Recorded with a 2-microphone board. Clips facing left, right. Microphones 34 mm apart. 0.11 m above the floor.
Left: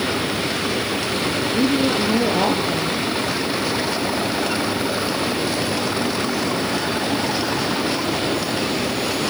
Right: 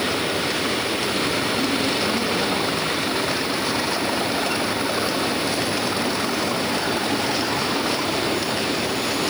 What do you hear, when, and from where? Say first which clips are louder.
1.5 s a woman speaking: left 3 dB; 35° left (ahead or behind), 3 m